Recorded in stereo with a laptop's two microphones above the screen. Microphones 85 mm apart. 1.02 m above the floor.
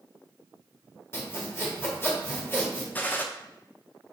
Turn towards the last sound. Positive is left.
turn(degrees=20)  # may be behind; listen again after turning